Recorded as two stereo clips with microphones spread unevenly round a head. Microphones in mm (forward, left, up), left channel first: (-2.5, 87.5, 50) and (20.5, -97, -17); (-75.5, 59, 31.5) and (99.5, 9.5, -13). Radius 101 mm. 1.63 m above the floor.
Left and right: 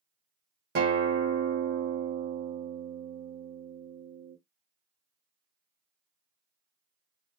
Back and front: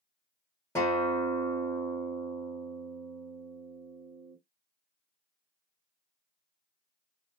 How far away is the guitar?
About 1.4 m.